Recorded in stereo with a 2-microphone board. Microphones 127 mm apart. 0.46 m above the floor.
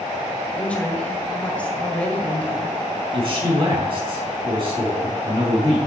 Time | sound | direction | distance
0.6 | a woman speaking | 10° left (ahead or behind) | 1.9 m
3.1 | a man speaking | 45° right (ahead or behind) | 3.5 m